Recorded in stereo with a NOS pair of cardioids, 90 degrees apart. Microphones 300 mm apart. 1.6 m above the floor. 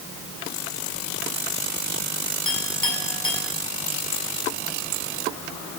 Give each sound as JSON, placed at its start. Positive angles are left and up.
{"t": 2.5, "sound": "a clink", "azimuth_deg": 15, "distance_m": 7.0}